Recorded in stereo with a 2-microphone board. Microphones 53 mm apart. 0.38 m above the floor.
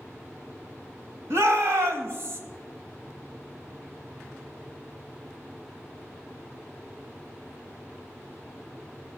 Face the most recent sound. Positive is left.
turn(degrees=-55)  # may be behind; listen again after turning